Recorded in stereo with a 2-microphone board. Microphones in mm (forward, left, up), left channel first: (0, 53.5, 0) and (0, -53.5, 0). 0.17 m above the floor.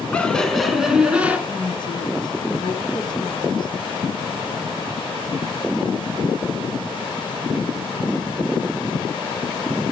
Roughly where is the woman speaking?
Left.